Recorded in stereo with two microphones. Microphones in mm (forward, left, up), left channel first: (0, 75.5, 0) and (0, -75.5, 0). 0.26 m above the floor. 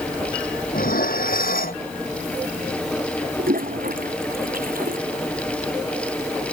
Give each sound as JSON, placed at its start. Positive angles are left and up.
{"t": 0.7, "sound": "dishes clattering", "side_deg": 70}
{"t": 3.4, "sound": "a toilet flushing", "side_deg": -70}